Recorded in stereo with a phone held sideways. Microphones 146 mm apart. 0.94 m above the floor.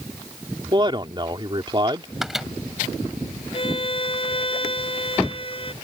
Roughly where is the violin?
Left.